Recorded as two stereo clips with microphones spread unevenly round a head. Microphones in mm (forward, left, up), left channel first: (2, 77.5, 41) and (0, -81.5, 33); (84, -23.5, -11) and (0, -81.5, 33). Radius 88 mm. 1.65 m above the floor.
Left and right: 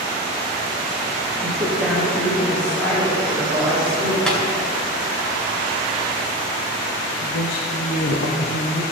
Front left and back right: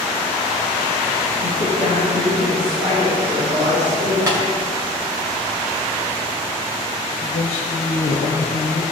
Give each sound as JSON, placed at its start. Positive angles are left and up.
{"t": 1.4, "sound": "a woman speaking", "azimuth_deg": -170, "distance_m": 3.0}
{"t": 4.3, "sound": "tapping", "azimuth_deg": 170, "distance_m": 2.0}
{"t": 7.2, "sound": "a woman speaking", "azimuth_deg": 55, "distance_m": 0.9}